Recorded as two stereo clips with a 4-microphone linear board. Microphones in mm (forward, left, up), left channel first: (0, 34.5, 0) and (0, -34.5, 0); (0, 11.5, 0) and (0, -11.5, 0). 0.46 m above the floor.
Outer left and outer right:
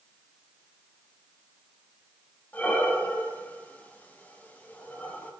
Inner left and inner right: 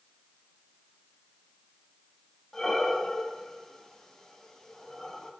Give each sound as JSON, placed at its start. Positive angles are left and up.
{"t": 2.5, "sound": "breathing", "side_deg": 25, "distance_m": 2.0}